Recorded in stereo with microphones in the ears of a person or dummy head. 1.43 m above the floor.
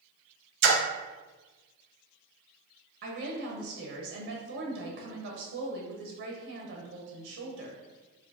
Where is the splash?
70° right (ahead or behind), 0.7 m.